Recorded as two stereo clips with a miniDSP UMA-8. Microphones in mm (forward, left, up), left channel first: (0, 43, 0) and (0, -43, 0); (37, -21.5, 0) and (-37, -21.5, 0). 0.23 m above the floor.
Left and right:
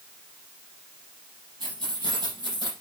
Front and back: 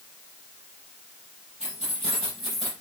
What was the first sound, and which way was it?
Keys jangling, 100° right.